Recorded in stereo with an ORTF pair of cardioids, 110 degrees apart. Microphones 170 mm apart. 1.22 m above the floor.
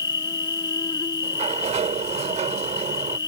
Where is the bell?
I don't hear a bell.